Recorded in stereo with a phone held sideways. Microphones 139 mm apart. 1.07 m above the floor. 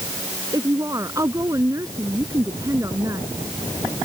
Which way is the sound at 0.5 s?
25° right (ahead or behind).